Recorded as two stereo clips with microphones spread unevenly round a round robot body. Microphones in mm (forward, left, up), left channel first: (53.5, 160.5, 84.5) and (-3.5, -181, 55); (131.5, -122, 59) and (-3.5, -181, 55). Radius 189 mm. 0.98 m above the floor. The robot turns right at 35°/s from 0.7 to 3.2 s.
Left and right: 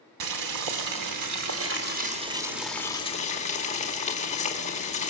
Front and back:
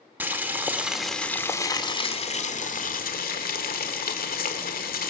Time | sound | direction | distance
0.2 | boiling | 80° right | 2.5 m